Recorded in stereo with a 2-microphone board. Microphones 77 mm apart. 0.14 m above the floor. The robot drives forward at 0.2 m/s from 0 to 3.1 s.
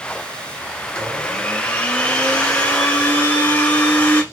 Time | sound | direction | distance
0.9 | a blender | 20° left (ahead or behind) | 1.5 m